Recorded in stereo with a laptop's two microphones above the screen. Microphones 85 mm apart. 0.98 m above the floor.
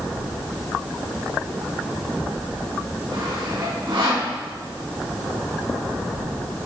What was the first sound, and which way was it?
Sawing, 70° right (ahead or behind).